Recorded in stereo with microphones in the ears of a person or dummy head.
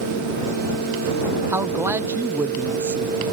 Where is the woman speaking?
10° right (ahead or behind).